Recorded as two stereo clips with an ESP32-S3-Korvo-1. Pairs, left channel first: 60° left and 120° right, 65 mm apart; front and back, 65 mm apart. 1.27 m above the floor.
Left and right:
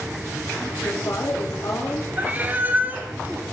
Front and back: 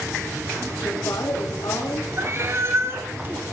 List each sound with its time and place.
0.8 s a woman speaking: 20° left, 2.5 m
2.2 s a cat meowing: 165° right, 1.4 m